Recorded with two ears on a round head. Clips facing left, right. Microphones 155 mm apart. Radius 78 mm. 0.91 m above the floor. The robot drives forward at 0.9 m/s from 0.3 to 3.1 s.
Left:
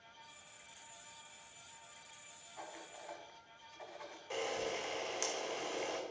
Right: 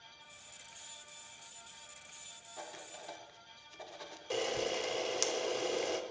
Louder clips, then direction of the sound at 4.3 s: Right 4 dB; 45° right (ahead or behind).